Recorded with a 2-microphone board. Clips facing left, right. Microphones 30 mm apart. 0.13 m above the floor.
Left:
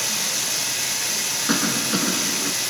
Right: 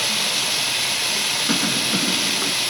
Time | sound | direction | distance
0.0 | running water | 45° right (ahead or behind) | 3 m
1.5 | a cough | 20° left (ahead or behind) | 1.3 m